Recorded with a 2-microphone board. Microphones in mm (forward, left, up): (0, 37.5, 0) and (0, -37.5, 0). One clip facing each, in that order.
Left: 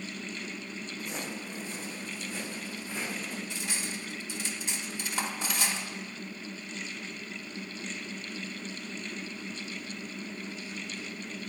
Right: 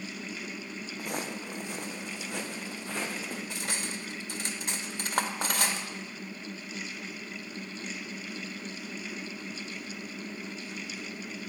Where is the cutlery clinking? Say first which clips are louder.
Right 1 dB; 60° right (ahead or behind), 1.3 m.